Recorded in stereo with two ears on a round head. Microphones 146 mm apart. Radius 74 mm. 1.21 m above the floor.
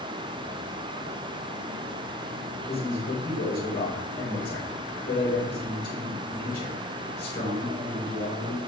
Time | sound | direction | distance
2.7 | a man speaking | 70° left (ahead or behind) | 7 m